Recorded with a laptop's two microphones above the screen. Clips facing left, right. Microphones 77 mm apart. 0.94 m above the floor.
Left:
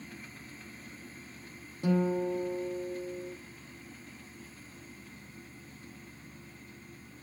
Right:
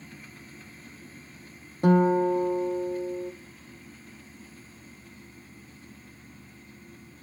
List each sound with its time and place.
1.8 s a guitar: 60° right (ahead or behind), 0.6 m